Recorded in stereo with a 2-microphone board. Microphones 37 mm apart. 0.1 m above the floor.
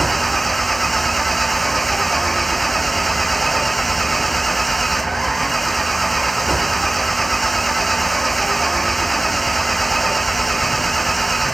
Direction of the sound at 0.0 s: 5° left (ahead or behind).